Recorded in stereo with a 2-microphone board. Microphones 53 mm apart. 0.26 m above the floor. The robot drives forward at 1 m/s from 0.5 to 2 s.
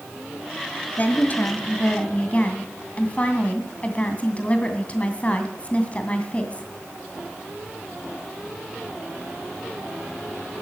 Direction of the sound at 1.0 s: 35° left (ahead or behind).